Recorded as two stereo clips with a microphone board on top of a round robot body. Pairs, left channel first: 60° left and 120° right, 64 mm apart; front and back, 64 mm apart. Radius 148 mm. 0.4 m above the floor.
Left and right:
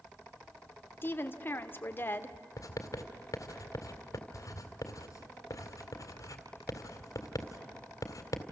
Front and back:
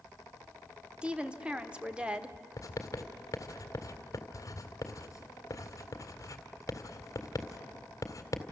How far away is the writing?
About 2.0 m.